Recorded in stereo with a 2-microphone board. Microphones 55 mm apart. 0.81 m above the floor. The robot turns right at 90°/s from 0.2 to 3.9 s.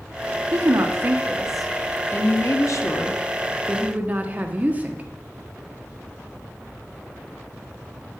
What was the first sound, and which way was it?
A woman speaking, 95° right.